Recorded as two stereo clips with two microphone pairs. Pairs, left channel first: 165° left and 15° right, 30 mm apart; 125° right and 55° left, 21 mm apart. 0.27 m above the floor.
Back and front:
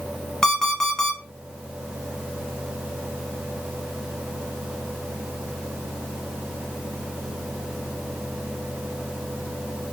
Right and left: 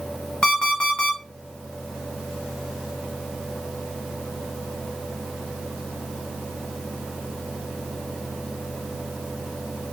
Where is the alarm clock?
120° right, 1.9 m.